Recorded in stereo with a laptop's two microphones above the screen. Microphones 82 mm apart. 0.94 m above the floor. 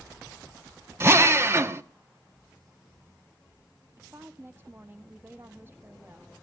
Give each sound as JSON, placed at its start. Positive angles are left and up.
{"t": 1.0, "sound": "a drill", "side_deg": -30, "distance_m": 1.1}
{"t": 4.0, "sound": "a woman speaking", "side_deg": -25, "distance_m": 2.0}